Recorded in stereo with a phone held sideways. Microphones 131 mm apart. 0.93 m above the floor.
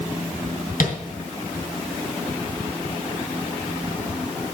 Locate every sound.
0.8 s tapping: 75° left (ahead or behind), 2.5 m